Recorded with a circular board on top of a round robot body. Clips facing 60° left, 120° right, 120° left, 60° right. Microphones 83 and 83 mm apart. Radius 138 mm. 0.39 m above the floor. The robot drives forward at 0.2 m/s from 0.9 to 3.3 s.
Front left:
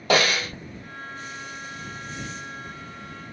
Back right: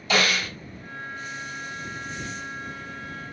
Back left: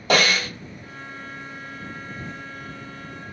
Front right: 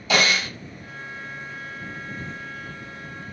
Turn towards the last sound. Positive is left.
turn(degrees=115)